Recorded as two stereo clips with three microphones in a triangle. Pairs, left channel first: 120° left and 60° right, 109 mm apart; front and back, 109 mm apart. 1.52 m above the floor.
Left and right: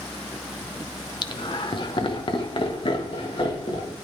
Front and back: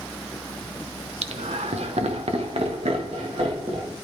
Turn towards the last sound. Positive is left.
turn(degrees=155)